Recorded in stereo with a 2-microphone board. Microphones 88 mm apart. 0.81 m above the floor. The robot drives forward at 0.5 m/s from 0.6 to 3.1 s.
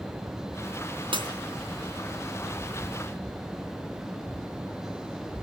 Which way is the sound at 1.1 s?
65° right (ahead or behind).